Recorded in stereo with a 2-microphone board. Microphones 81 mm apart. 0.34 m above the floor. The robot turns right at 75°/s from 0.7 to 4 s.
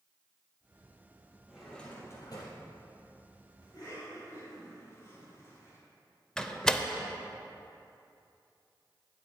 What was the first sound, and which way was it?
A drawer, 10° right.